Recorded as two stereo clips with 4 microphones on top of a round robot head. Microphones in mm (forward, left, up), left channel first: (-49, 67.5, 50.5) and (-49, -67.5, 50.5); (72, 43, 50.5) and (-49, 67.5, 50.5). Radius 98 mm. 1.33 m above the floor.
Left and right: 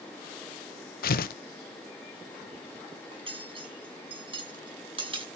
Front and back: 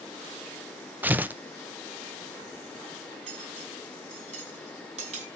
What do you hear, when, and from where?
1.0 s tearing paper: 90° left, 1.1 m
3.1 s cutlery clinking: 140° right, 6.5 m